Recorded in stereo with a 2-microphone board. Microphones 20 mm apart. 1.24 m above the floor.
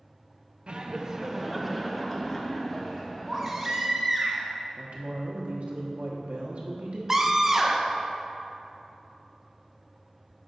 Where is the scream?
20° right (ahead or behind), 0.5 m.